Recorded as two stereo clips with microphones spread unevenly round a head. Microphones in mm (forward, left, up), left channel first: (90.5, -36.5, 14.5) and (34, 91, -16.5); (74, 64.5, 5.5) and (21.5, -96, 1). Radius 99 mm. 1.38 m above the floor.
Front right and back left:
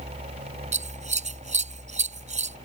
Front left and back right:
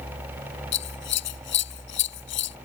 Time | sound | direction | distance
0.7 | scissors | 80° left | ?